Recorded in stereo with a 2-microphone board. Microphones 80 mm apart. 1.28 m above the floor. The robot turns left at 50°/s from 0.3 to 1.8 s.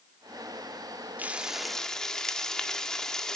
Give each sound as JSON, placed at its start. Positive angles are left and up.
{"t": 1.2, "sound": "frying", "azimuth_deg": -160, "distance_m": 1.4}